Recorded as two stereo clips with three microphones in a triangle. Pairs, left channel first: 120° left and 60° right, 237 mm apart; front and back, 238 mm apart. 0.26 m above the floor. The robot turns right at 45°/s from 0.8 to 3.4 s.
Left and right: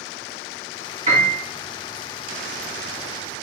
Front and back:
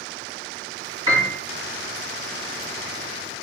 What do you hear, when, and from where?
1.1 s a piano: 115° right, 2.5 m; by 1.4 s 100° right, 2.5 m